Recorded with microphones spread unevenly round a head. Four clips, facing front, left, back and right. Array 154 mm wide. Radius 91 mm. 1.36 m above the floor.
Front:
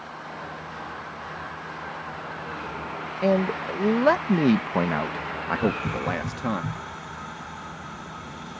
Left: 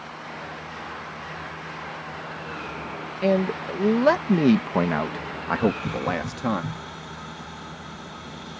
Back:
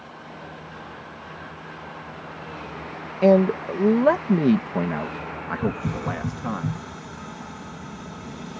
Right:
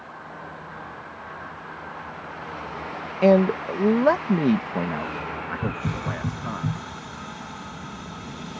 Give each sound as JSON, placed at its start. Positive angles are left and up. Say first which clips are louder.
{"t": 3.2, "sound": "a man speaking", "louder": "right 5 dB, back 6 dB", "azimuth_deg": -170}
{"t": 5.6, "sound": "a hiss", "louder": "left 7 dB, even", "azimuth_deg": -175}